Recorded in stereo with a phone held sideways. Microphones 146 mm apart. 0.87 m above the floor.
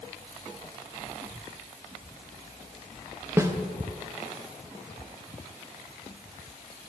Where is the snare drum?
20° right (ahead or behind), 0.6 m.